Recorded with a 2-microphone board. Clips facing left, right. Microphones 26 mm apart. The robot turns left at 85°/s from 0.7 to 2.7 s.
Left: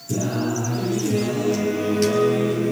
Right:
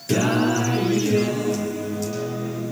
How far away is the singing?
About 4.5 m.